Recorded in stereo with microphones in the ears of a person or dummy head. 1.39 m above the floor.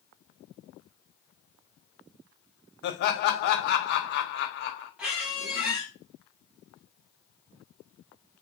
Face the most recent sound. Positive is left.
turn(degrees=-10)  # may be behind; listen again after turning